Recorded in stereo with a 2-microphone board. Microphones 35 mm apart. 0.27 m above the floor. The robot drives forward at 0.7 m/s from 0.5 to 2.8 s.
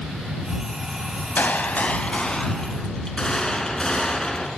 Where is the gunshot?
55° left (ahead or behind), 0.5 m; by 4.5 s 20° left (ahead or behind), 1.2 m.